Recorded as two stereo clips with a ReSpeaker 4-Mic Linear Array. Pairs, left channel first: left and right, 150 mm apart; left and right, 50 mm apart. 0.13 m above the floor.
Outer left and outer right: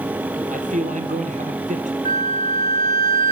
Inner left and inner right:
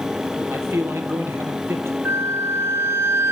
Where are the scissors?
I don't hear scissors.